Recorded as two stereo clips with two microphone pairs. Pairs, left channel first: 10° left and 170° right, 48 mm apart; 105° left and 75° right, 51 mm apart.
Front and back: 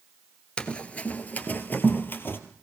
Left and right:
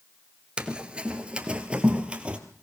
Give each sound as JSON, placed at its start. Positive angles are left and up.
{"t": 0.6, "sound": "running footsteps", "azimuth_deg": -25, "distance_m": 1.8}